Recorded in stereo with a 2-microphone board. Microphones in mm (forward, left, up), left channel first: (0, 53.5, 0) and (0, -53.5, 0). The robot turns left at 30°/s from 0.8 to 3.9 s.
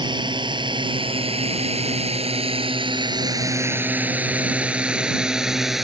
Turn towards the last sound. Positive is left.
turn(degrees=0)  # may be behind; listen again after turning